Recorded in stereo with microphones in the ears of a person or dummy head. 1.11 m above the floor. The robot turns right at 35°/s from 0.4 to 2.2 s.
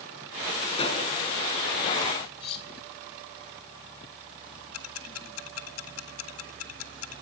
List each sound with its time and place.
0.7 s a pop: 35° left (ahead or behind), 4.5 m; by 1.0 s 25° left (ahead or behind), 4.5 m
2.4 s cutlery clinking: 30° left (ahead or behind), 2 m
4.7 s ticking: 85° left, 1.6 m